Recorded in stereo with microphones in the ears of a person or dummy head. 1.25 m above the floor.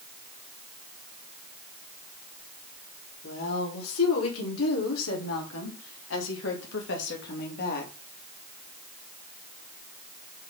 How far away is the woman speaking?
About 3.5 m.